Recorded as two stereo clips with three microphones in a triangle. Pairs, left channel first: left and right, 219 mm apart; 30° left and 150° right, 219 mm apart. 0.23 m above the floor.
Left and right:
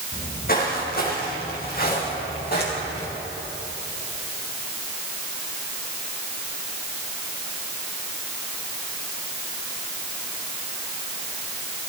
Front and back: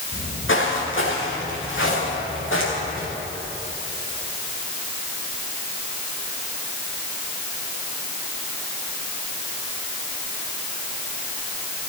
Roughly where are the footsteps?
Ahead left.